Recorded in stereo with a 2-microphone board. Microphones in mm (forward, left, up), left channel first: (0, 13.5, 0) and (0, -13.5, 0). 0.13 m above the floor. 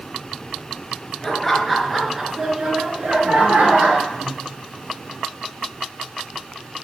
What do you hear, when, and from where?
1.2 s laughter: 10° left (ahead or behind), 2.5 m; by 4.0 s 60° right (ahead or behind), 3 m
4.1 s breathing: 30° right (ahead or behind), 4.5 m